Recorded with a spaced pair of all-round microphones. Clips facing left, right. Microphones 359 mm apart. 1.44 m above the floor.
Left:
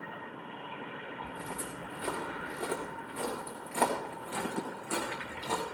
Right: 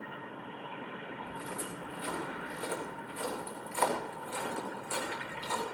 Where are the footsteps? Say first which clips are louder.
Even; 65° left (ahead or behind), 5 m.